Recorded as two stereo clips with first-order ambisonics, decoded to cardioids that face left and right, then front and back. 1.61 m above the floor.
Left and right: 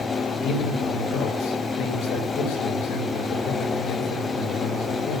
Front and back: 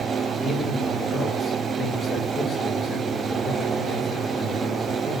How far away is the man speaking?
About 5.5 m.